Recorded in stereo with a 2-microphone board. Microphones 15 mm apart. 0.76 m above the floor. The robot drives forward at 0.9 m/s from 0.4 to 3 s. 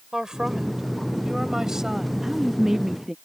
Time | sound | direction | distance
0.1 | a woman speaking | 45° right (ahead or behind) | ?
2.2 | a woman speaking | 25° right (ahead or behind) | ?